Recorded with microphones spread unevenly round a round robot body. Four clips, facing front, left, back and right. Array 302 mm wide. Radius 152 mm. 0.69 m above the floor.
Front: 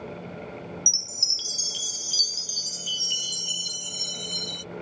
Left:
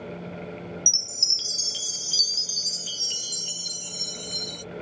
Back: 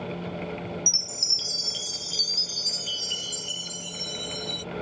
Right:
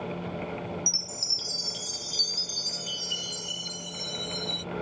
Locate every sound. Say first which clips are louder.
0.9 s a chime: right 3 dB, back 4 dB; 100° left